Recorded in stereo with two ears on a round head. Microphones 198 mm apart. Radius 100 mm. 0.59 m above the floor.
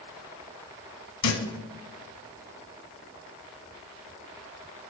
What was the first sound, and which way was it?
A thud, 80° left.